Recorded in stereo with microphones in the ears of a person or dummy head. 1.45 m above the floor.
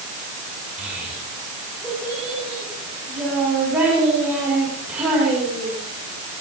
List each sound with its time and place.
0.8 s a child speaking: 5° right (ahead or behind), 7.5 m